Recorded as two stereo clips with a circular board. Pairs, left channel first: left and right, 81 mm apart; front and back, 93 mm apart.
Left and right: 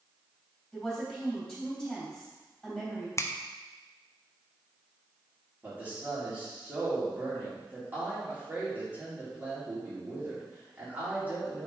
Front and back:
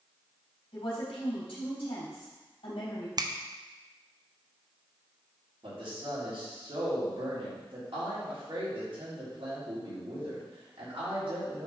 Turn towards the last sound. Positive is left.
turn(degrees=-160)